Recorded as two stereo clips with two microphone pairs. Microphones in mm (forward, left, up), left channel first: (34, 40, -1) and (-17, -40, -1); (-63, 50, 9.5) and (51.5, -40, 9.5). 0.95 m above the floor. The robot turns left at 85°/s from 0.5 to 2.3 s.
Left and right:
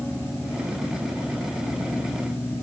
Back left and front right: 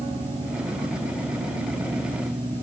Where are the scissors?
No scissors in this recording.